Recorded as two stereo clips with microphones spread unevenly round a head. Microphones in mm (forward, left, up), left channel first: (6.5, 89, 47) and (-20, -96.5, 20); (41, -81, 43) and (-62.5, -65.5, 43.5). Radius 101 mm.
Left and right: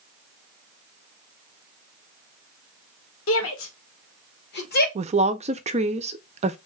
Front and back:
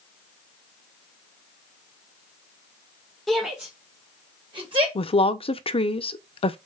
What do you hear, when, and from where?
3.3 s a shout: 80° left, 1.4 m; by 4.8 s 125° left, 1.7 m
5.0 s a woman speaking: 40° right, 0.6 m